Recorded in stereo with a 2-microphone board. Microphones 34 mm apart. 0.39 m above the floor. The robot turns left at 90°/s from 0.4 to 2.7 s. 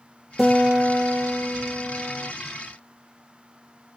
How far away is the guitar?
About 1.1 m.